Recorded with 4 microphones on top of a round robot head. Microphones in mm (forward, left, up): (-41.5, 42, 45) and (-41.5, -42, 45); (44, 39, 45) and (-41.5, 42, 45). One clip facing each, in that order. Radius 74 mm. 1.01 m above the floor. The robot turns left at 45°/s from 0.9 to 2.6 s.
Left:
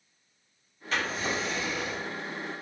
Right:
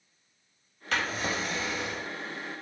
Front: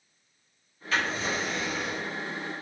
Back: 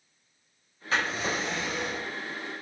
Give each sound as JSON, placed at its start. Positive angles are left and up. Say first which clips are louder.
{"t": 0.9, "sound": "a drawer", "louder": "even, even", "azimuth_deg": -115, "distance_m": 0.9}